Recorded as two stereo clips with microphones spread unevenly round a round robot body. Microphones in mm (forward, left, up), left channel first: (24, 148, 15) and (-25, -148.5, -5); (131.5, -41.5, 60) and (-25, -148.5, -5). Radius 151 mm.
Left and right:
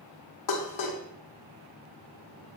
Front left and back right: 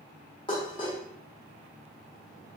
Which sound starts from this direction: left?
Dishes clattering, at 0.5 s.